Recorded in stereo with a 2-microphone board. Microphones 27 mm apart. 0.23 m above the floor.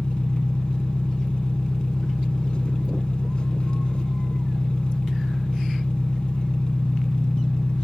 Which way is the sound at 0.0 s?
40° left (ahead or behind).